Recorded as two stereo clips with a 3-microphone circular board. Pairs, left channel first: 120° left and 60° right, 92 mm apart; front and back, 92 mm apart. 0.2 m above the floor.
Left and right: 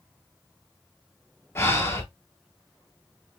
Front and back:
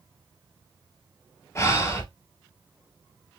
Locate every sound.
1.6 s breathing: 60° left, 0.9 m